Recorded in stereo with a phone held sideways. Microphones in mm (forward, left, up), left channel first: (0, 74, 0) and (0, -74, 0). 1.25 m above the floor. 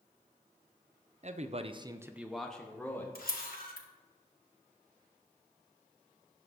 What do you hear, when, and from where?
1.2 s a man speaking: 50° right (ahead or behind), 0.6 m; by 3.0 s 15° left (ahead or behind), 1.2 m
3.1 s a camera shutter: 80° left, 1.3 m